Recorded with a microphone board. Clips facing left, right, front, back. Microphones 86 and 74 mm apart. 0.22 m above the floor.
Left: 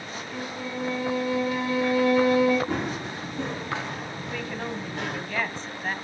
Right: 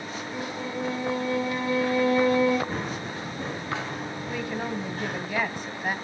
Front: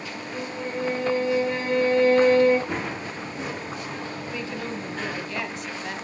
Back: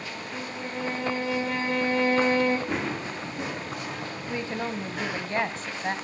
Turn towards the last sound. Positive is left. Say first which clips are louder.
# right 2 dB, back 3 dB
turn(degrees=-160)